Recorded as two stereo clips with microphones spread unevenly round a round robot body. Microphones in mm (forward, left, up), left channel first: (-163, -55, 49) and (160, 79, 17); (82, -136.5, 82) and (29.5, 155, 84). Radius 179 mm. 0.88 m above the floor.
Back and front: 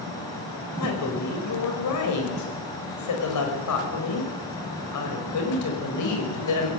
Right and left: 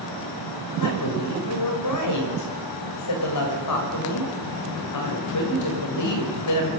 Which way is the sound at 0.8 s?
115° right.